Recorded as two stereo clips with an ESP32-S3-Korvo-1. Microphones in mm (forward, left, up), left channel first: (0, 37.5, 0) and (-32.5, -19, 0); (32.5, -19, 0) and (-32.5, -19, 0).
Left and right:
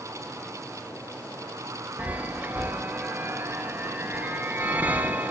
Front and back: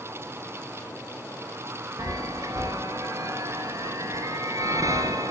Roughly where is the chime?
Behind.